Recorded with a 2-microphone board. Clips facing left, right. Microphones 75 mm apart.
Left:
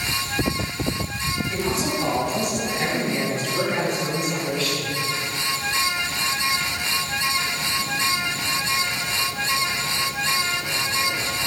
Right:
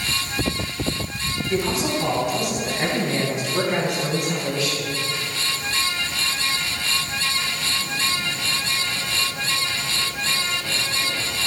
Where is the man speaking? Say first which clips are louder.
Right 4 dB; centre (ahead or behind), 3.5 m; by 4.9 s 20° right (ahead or behind), 6 m.